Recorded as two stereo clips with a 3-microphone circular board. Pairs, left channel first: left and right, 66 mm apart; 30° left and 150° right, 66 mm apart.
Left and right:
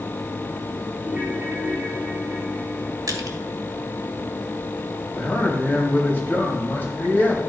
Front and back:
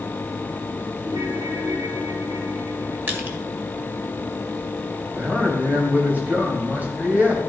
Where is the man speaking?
150° left, 3 m.